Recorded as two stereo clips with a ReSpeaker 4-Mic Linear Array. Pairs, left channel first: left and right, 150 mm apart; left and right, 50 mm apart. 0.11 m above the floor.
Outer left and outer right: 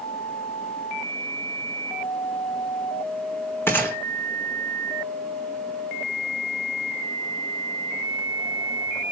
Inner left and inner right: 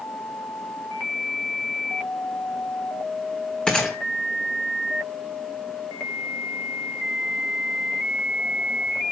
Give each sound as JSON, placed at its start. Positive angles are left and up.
{"t": 3.7, "sound": "a gunshot", "side_deg": 15, "distance_m": 1.7}